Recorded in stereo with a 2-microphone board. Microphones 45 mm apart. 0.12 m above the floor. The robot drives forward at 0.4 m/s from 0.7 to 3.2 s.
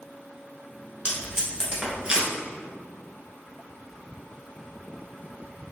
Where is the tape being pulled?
15° right (ahead or behind), 1.1 m.